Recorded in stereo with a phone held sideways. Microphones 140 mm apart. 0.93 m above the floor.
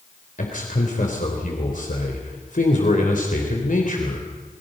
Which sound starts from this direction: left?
A man speaking, at 0.4 s.